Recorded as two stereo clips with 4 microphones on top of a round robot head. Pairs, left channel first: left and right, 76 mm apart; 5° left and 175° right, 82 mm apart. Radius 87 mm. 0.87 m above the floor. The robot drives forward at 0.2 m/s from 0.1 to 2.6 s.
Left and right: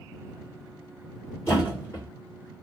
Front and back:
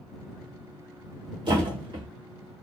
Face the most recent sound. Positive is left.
turn(degrees=160)